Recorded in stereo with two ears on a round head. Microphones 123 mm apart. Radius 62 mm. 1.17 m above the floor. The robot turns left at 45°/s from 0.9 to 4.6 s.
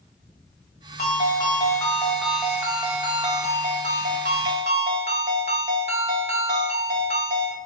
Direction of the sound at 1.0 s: 55° left.